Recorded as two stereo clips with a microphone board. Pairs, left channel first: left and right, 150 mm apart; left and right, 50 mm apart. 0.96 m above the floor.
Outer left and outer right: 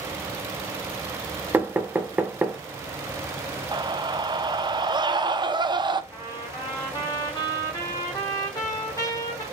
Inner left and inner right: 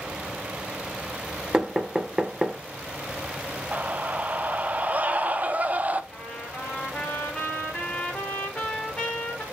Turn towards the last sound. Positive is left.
turn(degrees=25)  # may be behind; listen again after turning